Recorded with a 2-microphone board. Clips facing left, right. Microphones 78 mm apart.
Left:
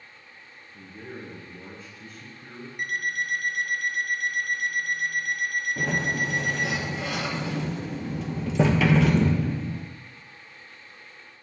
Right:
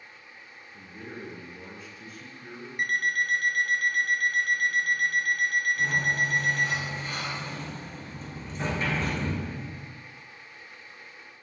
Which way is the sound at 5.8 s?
85° left.